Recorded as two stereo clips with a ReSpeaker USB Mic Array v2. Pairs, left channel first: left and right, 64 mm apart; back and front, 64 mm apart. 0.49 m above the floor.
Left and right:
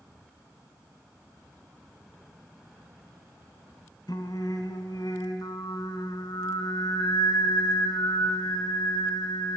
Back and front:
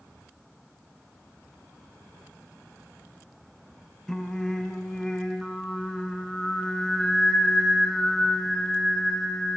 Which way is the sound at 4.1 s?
95° left.